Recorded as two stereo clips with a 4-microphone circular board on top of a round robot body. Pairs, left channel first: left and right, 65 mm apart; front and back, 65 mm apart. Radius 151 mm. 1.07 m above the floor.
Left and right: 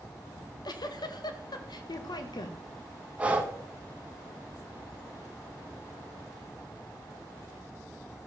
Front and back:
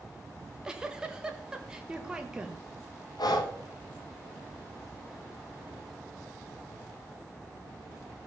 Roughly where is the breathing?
Ahead.